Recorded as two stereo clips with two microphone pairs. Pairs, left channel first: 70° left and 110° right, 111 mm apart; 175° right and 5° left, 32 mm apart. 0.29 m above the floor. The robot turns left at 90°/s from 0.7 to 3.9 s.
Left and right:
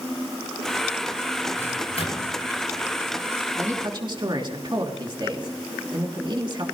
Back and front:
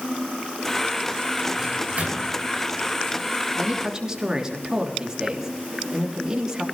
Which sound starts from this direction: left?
A microwave, at 1.6 s.